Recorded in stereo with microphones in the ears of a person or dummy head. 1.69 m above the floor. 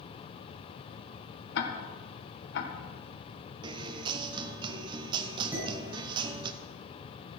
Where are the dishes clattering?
10° right (ahead or behind), 6 m.